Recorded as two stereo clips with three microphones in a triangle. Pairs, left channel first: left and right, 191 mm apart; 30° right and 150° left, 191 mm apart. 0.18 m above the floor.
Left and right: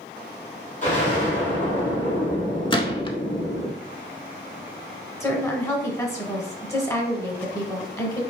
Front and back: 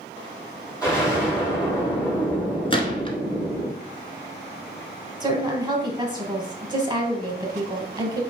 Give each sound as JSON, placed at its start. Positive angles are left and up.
{"t": 0.8, "sound": "an explosion", "azimuth_deg": 40, "distance_m": 3.0}
{"t": 2.7, "sound": "a gunshot", "azimuth_deg": 25, "distance_m": 0.7}
{"t": 5.2, "sound": "a woman speaking", "azimuth_deg": 140, "distance_m": 1.1}